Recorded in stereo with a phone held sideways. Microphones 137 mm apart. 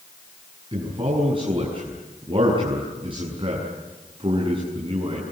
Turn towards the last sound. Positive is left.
turn(degrees=-40)  # may be behind; listen again after turning